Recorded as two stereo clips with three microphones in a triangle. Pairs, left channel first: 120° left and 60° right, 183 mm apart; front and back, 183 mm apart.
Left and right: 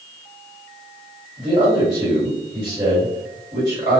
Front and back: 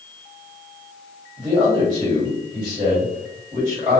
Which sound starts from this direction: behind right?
A man speaking, at 1.4 s.